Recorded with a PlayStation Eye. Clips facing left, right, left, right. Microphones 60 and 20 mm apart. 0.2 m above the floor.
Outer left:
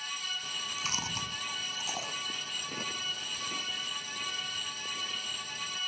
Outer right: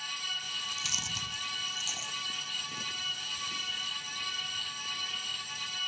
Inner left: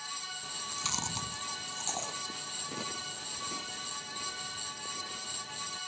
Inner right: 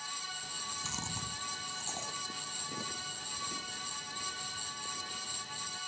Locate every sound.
0.4 s chewing: 40° left (ahead or behind)